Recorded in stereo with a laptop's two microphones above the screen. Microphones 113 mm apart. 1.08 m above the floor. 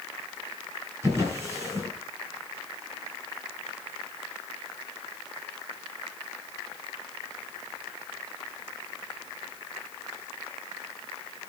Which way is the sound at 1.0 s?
25° right (ahead or behind).